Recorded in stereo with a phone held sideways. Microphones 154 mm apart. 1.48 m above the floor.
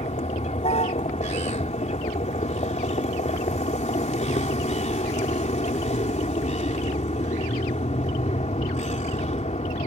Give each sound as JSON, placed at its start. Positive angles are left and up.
{"t": 0.0, "sound": "a vehicle", "side_deg": 50}